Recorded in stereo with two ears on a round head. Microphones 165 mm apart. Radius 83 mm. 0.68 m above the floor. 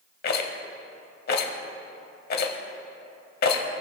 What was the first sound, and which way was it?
A rattle, 50° left (ahead or behind).